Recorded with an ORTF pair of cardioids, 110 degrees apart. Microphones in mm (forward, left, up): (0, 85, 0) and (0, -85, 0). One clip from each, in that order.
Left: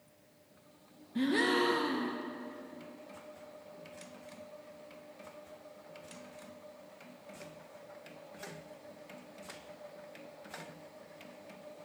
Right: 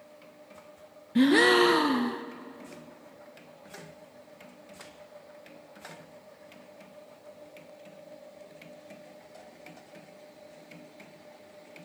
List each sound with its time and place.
1.1 s a gasp: 45° right, 0.6 m